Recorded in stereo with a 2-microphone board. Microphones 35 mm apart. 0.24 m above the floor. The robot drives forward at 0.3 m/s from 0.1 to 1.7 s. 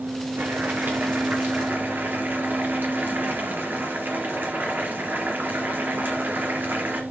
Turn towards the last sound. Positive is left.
turn(degrees=-65)  # may be behind; listen again after turning